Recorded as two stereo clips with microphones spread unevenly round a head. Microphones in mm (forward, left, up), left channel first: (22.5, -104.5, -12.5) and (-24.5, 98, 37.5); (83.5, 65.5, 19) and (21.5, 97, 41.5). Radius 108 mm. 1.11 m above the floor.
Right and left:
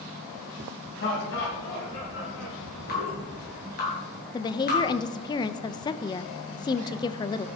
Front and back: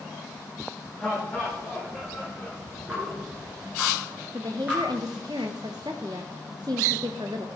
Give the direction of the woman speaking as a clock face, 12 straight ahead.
5 o'clock.